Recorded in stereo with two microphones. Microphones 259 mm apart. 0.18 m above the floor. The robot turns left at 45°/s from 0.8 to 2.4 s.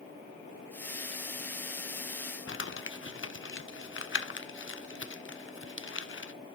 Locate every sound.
2.5 s crumpling: 55° left (ahead or behind), 0.8 m